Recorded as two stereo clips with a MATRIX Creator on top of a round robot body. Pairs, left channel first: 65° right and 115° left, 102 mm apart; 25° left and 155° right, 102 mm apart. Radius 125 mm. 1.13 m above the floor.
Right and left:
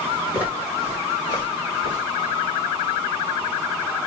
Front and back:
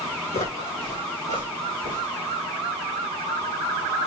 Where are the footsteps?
40° left, 2.5 m; by 2.1 s 70° left, 3 m.